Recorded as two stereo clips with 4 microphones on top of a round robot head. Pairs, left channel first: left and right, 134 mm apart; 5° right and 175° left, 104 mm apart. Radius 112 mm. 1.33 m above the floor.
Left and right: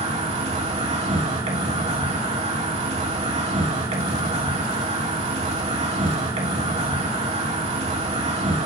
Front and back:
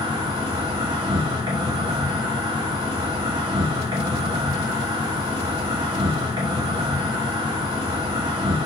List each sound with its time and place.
0.0 s an insect: 130° right, 3 m